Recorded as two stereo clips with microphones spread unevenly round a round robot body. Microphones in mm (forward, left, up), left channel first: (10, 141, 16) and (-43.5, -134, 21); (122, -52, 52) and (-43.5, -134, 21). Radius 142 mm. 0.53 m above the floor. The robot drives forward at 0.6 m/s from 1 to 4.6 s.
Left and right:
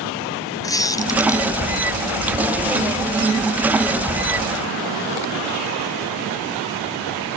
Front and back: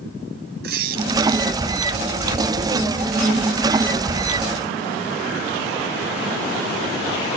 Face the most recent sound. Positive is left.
turn(degrees=170)